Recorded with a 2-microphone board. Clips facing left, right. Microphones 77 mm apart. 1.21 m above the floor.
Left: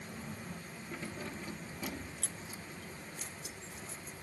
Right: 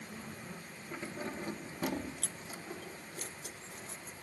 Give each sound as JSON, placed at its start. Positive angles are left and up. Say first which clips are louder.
{"t": 0.9, "sound": "keys jangling", "louder": "right 3 dB", "side_deg": -20}